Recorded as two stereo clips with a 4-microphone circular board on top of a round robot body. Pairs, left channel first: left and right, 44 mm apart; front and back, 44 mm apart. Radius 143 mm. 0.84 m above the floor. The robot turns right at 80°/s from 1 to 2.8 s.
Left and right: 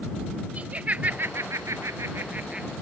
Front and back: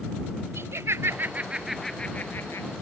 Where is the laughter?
155° right; by 2.7 s 20° right.